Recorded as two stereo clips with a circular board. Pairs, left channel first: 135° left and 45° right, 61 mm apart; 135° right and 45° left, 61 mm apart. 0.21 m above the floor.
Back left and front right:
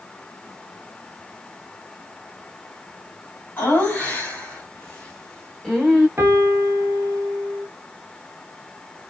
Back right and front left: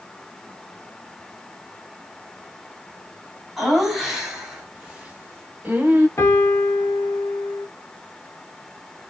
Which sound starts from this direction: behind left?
Laughter, at 3.6 s.